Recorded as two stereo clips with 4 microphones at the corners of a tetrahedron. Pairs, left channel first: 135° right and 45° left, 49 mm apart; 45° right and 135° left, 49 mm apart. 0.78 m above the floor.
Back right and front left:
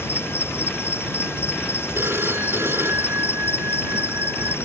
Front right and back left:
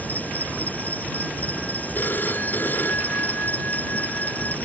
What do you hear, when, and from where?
0.0 s an insect: 100° right
1.9 s a phone ringing: 5° left